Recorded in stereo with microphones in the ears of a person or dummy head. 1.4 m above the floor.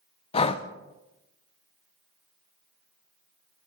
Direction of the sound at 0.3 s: 30° left (ahead or behind).